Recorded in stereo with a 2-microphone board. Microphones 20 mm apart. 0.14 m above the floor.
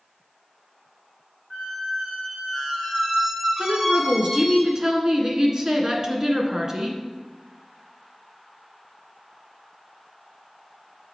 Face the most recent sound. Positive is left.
turn(degrees=-30)  # may be behind; listen again after turning